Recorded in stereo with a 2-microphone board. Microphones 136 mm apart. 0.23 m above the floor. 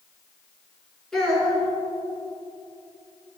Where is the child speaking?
5° left (ahead or behind), 1.5 m.